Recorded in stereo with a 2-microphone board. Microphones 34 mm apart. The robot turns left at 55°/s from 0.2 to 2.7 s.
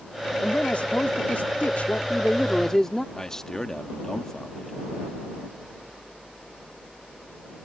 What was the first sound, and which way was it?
A man speaking, 145° left.